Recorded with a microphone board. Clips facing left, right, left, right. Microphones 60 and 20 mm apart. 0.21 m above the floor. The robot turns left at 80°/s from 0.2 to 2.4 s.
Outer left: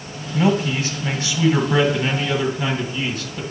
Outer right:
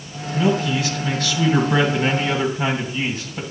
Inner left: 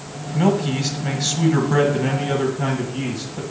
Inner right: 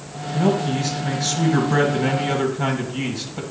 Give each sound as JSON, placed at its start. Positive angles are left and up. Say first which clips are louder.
{"t": 0.3, "sound": "a man speaking", "louder": "outer left 1 dB, inner left 1 dB", "azimuth_deg": 125, "distance_m": 1.5}